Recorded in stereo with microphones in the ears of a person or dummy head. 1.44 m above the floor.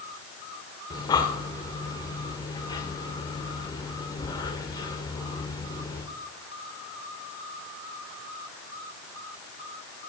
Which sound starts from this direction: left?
Breathing, at 0.9 s.